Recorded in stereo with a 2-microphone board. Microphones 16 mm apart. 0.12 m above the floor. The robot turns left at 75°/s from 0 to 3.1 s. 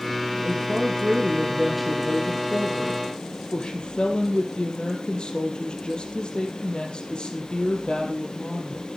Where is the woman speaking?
85° right, 3.5 m; by 8.9 s 75° left, 3.5 m.